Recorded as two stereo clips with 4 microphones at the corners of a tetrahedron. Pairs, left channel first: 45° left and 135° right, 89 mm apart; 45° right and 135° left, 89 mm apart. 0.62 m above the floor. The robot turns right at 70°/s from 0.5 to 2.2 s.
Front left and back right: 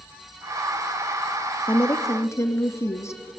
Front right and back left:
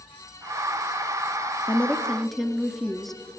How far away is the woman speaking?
About 0.6 m.